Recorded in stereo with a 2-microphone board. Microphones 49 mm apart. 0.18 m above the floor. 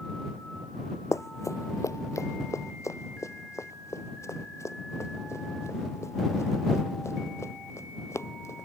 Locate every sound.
1.1 s running footsteps: 80° left; by 8.7 s 60° left (ahead or behind)